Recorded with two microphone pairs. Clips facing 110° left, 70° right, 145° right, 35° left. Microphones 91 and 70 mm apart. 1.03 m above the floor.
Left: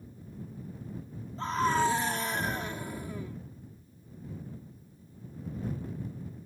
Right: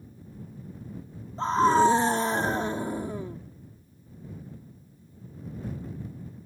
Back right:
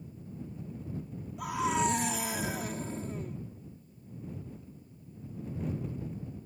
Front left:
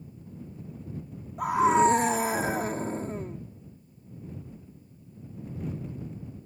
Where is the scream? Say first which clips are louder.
Right 7 dB, front left 9 dB; 15° right.